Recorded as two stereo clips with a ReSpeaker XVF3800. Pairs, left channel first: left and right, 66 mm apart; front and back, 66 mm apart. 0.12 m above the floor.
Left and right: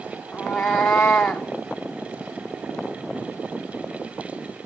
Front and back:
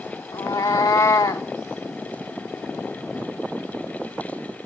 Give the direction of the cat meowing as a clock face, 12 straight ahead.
11 o'clock.